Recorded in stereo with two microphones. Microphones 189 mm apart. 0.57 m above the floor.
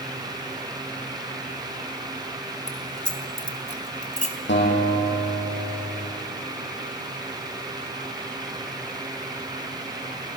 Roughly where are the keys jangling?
Left.